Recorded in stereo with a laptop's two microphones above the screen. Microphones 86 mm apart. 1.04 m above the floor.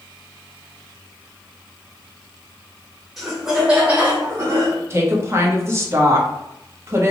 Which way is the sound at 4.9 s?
30° right (ahead or behind).